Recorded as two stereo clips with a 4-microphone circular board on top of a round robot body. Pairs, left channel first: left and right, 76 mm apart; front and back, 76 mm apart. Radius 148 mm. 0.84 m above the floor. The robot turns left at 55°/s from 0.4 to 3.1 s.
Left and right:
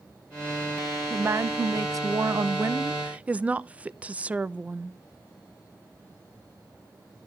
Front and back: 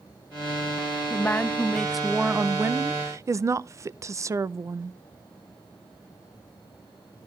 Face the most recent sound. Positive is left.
turn(degrees=-155)